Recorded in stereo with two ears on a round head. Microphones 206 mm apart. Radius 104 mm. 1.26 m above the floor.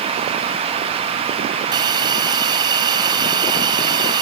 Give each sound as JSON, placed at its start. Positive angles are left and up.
{"t": 1.7, "sound": "a hiss", "side_deg": -20}